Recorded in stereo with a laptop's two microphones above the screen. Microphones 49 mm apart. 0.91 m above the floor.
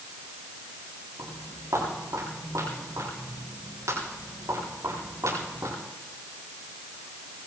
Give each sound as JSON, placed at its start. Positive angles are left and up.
{"t": 1.2, "sound": "footsteps", "side_deg": -85, "distance_m": 9.0}